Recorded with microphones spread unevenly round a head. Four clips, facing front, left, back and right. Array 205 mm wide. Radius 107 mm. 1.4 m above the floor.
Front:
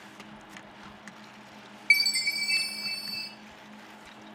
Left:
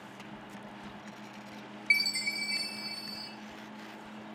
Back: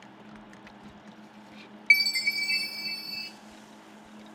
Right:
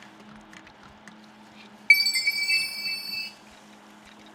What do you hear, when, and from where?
1.9 s a chime: 95° right, 0.5 m